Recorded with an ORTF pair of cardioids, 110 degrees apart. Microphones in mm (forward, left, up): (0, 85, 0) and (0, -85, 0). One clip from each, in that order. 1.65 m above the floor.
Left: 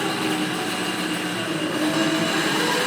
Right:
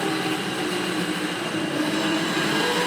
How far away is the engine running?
About 8 m.